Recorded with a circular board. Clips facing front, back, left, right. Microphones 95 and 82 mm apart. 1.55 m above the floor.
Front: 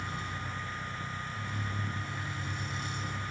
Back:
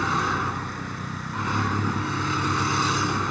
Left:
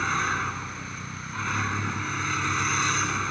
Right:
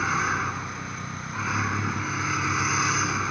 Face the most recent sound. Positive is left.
turn(degrees=-175)